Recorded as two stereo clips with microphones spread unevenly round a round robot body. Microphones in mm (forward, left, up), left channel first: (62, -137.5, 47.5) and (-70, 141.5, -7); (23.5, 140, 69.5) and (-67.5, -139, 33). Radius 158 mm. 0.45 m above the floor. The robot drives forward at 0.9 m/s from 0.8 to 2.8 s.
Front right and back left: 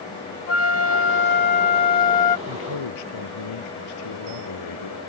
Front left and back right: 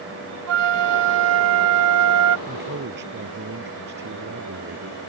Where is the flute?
110° right; by 2.4 s 135° right.